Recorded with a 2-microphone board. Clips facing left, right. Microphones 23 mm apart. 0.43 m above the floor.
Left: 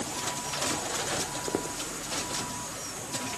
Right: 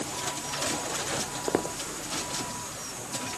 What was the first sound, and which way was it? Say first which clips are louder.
Footsteps: right 2 dB; 55° right (ahead or behind).